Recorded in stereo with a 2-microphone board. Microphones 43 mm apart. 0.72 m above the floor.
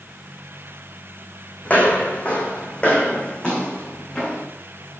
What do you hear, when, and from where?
1.6 s footsteps: 40° left (ahead or behind), 2.5 m; by 4.5 s 20° left (ahead or behind), 3.5 m